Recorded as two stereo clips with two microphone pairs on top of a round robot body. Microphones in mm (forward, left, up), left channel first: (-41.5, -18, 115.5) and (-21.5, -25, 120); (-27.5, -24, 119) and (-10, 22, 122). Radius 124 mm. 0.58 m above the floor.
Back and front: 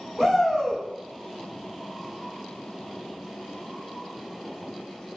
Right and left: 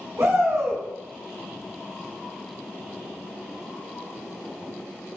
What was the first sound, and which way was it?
A shout, 65° left.